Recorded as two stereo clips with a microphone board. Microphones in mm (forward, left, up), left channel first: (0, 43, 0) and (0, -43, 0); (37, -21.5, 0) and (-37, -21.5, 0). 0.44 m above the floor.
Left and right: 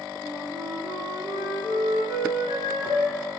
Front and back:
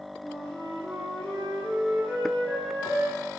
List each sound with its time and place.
0.2 s a flute: 75° right, 6 m